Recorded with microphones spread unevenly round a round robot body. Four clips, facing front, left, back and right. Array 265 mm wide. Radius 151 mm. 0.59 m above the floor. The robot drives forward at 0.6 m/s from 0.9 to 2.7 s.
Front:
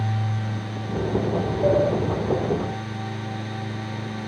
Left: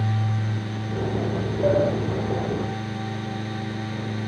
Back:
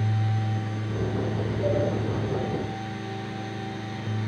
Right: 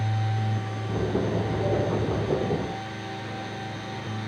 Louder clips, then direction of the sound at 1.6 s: Left 8 dB, front 6 dB; 30° left.